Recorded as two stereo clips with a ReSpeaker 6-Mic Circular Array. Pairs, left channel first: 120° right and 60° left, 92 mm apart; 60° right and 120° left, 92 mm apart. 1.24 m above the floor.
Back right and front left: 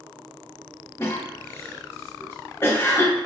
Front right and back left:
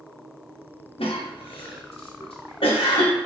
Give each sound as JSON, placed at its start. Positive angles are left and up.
{"t": 1.0, "sound": "a cough", "azimuth_deg": -55, "distance_m": 0.8}